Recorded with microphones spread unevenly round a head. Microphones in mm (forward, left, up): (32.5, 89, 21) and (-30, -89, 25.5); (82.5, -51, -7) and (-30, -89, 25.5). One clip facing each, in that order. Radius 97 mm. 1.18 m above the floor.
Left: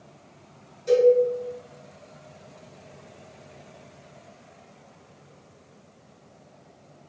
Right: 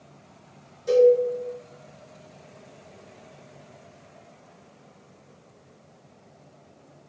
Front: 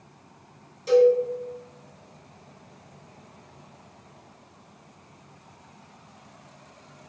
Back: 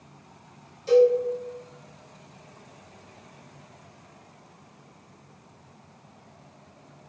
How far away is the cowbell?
About 1.5 m.